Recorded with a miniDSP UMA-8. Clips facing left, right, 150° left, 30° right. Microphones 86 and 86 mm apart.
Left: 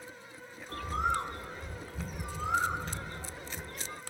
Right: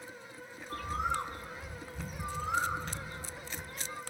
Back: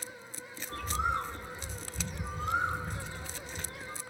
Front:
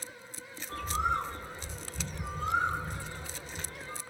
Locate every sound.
0.7 s a bird: 65° left, 2.5 m